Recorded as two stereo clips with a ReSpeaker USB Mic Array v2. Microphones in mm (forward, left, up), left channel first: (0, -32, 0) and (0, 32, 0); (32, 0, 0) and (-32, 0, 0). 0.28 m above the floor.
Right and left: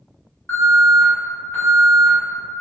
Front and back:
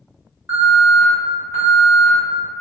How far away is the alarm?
About 1.6 m.